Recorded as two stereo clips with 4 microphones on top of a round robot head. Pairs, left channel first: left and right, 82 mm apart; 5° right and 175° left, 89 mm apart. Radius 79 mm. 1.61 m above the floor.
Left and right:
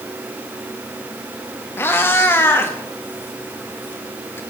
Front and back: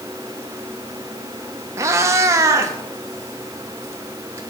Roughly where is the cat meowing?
Behind left.